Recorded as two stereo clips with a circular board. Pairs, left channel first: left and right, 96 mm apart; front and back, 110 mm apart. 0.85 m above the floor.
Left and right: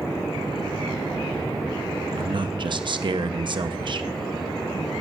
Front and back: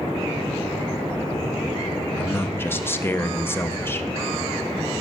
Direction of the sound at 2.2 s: 65° right.